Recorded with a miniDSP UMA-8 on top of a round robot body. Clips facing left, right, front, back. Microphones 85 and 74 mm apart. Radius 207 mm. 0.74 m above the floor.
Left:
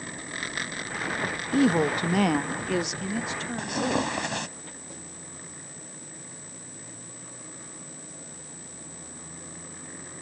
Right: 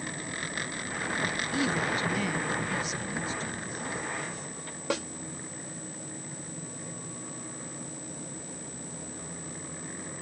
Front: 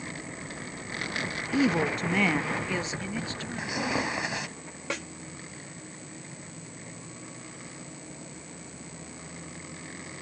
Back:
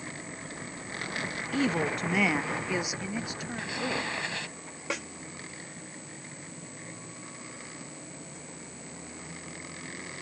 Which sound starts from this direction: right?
A snare drum, at 4.9 s.